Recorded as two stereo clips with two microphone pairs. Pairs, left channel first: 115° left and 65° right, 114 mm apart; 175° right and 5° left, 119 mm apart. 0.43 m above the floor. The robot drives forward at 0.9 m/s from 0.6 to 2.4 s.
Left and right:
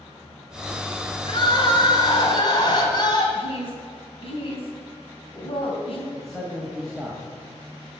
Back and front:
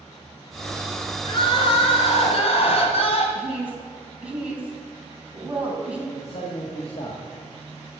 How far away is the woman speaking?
About 3.5 m.